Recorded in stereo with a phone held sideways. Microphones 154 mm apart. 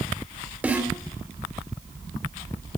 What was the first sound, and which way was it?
A snare drum, 10° right (ahead or behind).